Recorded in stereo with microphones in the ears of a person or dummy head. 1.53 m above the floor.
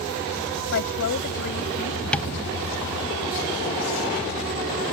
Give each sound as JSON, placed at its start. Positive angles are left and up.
{"t": 0.7, "sound": "a woman speaking", "side_deg": 55}
{"t": 2.1, "sound": "tapping", "side_deg": 5}